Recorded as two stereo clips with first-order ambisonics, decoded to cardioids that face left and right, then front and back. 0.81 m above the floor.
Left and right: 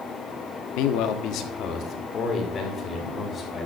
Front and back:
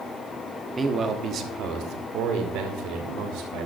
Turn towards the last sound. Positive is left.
turn(degrees=160)